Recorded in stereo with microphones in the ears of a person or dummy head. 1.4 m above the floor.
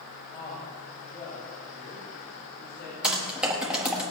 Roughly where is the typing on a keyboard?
Centre.